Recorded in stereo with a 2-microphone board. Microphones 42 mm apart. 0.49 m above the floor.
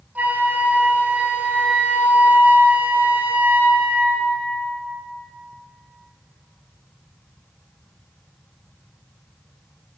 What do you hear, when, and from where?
0.1 s a flute: 35° right (ahead or behind), 1.4 m